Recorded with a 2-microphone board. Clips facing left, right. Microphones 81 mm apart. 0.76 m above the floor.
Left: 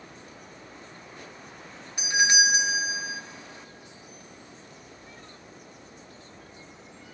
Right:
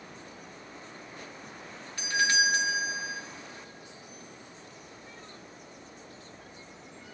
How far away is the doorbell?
About 0.9 m.